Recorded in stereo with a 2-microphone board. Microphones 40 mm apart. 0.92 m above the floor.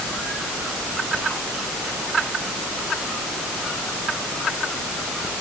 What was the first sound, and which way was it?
Only background noise.